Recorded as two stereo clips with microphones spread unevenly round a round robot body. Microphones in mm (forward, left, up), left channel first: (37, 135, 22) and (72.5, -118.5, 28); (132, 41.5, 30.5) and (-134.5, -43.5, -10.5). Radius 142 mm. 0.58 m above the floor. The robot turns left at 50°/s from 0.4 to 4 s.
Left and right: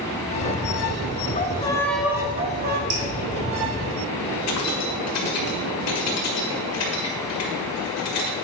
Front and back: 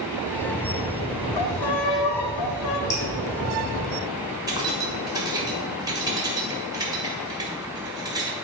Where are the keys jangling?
125° left, 1.7 m.